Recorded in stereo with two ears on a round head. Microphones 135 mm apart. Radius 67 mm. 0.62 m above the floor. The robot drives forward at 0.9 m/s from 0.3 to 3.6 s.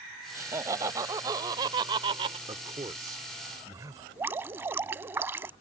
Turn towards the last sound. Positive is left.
turn(degrees=-15)  # may be behind; listen again after turning